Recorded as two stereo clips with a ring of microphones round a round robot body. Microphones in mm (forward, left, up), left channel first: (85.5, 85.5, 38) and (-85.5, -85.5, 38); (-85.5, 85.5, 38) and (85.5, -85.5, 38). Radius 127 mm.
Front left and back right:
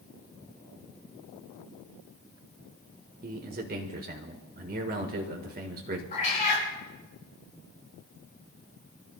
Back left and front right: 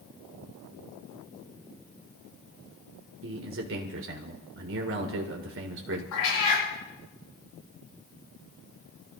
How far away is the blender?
No blender in this recording.